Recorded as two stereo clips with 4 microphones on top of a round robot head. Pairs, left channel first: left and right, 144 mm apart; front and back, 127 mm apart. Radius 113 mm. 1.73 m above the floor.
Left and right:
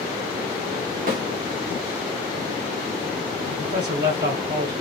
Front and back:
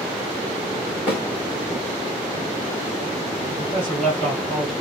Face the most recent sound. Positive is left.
turn(degrees=-85)